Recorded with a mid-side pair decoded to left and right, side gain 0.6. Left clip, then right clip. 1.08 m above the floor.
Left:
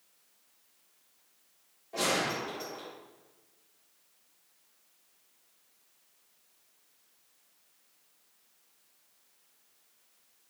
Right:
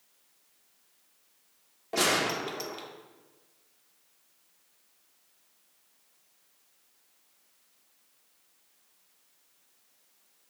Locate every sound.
1.9 s a gunshot: 60° right, 0.7 m